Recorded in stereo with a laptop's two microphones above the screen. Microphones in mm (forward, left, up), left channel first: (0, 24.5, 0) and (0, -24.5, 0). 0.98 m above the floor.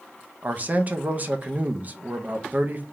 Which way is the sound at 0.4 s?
40° right (ahead or behind).